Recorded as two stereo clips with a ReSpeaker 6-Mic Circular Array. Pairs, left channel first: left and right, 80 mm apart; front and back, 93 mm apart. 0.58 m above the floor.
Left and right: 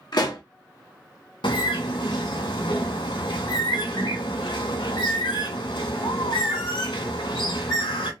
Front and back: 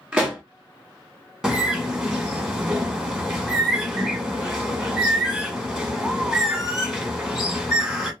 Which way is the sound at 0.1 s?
105° left.